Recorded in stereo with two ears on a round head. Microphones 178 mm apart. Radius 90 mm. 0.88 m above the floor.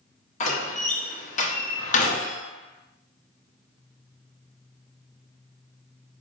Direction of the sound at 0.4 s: 40° left (ahead or behind).